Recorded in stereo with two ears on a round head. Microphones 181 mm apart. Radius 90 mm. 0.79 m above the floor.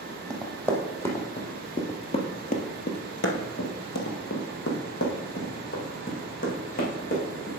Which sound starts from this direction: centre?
Running footsteps, at 0.3 s.